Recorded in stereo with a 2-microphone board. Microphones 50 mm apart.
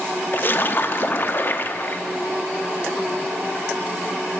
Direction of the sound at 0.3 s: 40° left (ahead or behind).